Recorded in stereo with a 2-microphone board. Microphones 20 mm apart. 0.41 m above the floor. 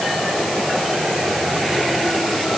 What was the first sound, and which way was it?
Only background noise.